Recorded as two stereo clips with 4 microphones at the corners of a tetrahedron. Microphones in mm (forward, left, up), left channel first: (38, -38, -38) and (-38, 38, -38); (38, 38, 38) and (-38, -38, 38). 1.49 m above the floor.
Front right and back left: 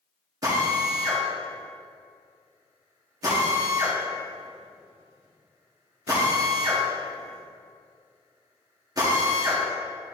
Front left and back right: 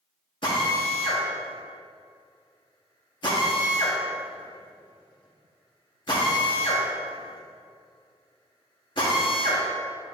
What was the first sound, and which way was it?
A drill, 80° left.